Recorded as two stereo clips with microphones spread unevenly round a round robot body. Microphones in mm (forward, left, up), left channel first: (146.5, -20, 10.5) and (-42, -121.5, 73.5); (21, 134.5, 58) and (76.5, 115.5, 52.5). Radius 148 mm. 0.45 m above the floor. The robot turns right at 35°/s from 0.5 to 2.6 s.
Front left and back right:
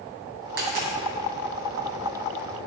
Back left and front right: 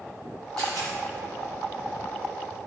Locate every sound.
0.6 s a dropped coin: 115° right, 3.5 m; by 0.9 s 100° right, 3.5 m